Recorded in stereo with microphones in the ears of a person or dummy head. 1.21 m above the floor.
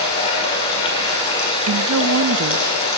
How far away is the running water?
About 4 m.